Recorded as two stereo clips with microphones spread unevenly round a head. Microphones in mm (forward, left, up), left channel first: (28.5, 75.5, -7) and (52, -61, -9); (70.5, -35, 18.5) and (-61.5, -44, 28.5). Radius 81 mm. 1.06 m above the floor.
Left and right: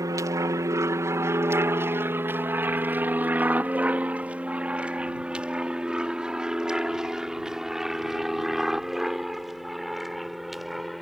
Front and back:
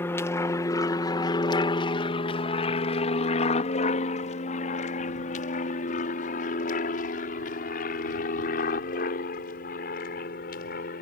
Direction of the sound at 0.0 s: 45° right.